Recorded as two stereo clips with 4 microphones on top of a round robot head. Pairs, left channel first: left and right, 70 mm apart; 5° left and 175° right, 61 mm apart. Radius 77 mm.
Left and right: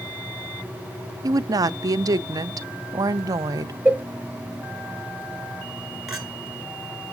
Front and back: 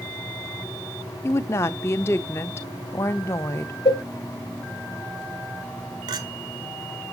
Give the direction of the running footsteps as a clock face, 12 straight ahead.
I don't hear running footsteps.